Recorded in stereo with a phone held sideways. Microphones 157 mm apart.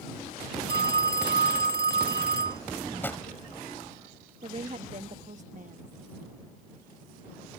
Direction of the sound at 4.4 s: 55° right (ahead or behind).